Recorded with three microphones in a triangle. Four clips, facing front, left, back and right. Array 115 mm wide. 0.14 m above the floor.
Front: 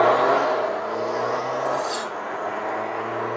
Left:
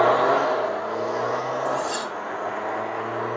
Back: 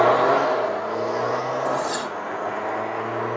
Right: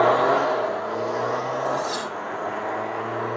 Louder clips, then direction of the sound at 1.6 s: Even, back 1 dB; 175° left.